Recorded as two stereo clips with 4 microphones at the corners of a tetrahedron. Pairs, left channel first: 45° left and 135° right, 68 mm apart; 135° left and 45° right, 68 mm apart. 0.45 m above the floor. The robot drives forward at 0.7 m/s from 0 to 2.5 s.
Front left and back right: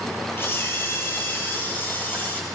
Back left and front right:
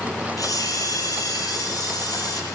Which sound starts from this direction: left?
A camera shutter, at 0.4 s.